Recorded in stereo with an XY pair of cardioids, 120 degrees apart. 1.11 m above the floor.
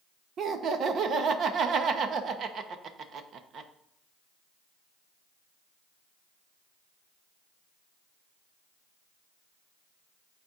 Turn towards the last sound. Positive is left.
turn(degrees=-50)